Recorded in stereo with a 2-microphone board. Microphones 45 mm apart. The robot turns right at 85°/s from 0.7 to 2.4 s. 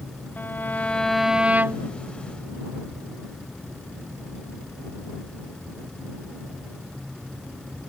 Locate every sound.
0.4 s a violin: 145° left; by 1.9 s 110° right